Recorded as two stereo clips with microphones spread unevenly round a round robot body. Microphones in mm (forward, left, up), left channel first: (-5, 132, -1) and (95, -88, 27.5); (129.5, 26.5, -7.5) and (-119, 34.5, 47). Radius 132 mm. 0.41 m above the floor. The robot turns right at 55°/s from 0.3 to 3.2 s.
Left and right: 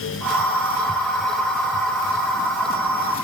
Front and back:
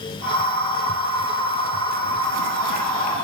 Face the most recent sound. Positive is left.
No sound to turn to.